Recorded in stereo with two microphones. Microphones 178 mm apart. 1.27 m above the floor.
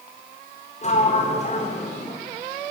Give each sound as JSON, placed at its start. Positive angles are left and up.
{"t": 0.8, "sound": "a sliding door", "side_deg": 40, "distance_m": 4.0}